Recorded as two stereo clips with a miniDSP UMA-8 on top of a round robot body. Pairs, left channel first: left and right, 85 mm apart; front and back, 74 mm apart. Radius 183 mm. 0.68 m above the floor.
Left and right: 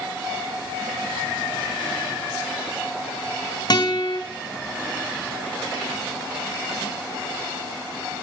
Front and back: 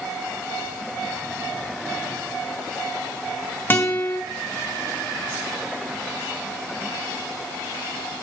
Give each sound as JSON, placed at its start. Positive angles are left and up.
{"t": 3.7, "sound": "a guitar", "azimuth_deg": 60, "distance_m": 1.7}